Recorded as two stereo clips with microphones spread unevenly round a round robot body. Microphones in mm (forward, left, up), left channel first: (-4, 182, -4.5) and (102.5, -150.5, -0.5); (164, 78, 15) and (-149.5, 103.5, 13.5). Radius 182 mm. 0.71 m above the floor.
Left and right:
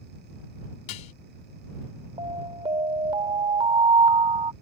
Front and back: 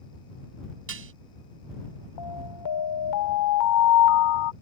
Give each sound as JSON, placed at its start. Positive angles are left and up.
{"t": 0.9, "sound": "dishes clattering", "azimuth_deg": 125}
{"t": 2.2, "sound": "an alarm", "azimuth_deg": 5}